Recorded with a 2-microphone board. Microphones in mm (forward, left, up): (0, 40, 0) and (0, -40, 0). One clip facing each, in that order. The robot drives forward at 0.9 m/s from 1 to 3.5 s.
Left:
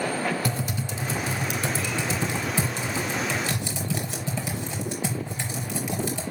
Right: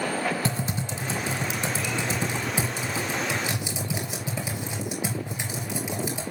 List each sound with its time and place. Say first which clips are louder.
0.5 s typing on a keyboard: even; 25° right (ahead or behind), 2.5 m; by 6.2 s 15° right (ahead or behind), 5 m